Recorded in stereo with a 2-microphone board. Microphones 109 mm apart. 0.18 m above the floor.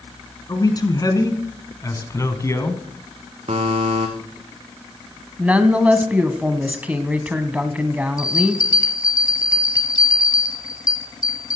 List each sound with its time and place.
0.5 s a man speaking: 35° left (ahead or behind), 2 m; by 2.8 s 25° left (ahead or behind), 1.5 m
3.5 s a buzzer: 80° right, 2.5 m
5.4 s a woman speaking: 15° right (ahead or behind), 1.0 m
8.2 s a bell: 35° left (ahead or behind), 1.3 m